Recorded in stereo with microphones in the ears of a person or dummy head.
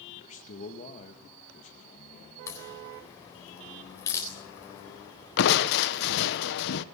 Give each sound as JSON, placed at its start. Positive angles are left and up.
{"t": 0.1, "sound": "a man speaking", "side_deg": 40, "distance_m": 2.0}
{"t": 2.5, "sound": "a crack", "side_deg": 15, "distance_m": 4.0}
{"t": 5.4, "sound": "crushing", "side_deg": 65, "distance_m": 1.0}